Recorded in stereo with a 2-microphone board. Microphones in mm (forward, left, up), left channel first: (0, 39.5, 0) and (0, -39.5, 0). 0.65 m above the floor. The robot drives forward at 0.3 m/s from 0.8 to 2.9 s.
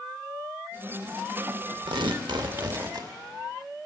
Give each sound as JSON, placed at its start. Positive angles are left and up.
{"t": 1.9, "sound": "tearing paper", "side_deg": -75, "distance_m": 0.7}